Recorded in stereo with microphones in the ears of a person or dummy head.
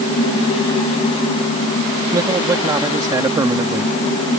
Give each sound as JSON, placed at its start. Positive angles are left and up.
{"t": 2.1, "sound": "a man speaking", "side_deg": -20}